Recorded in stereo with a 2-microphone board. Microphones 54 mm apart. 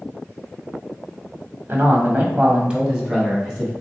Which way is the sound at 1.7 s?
40° right (ahead or behind).